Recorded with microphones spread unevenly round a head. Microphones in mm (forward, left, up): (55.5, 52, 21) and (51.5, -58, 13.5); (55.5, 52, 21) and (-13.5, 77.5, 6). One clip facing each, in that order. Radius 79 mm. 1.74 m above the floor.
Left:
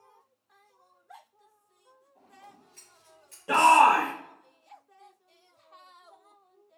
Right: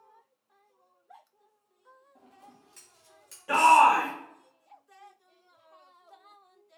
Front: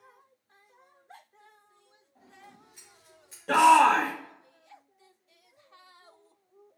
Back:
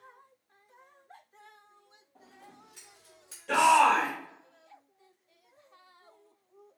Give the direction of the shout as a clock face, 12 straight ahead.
11 o'clock.